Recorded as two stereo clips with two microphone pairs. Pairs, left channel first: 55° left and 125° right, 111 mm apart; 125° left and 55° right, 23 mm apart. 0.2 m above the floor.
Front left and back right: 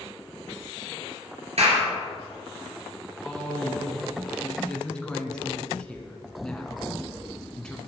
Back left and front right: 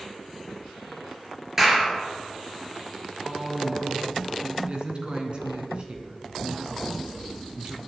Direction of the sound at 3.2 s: 25° right.